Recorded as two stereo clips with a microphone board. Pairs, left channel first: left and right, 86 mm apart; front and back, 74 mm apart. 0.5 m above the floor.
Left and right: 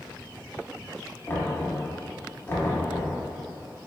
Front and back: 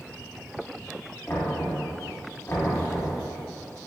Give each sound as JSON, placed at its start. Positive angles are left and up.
{"t": 1.3, "sound": "knocking", "azimuth_deg": 40, "distance_m": 0.8}